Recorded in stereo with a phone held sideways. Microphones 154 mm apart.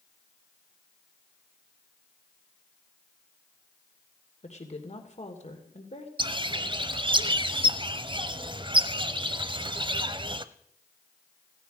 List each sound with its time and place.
4.4 s a woman speaking: 45° left (ahead or behind), 2.5 m
6.2 s a bird: 30° right (ahead or behind), 0.7 m